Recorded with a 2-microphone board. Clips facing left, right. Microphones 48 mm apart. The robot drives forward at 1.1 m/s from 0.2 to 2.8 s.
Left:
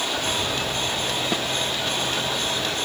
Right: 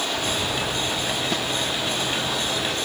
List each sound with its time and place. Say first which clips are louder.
1.3 s a snare drum: even; 10° left (ahead or behind)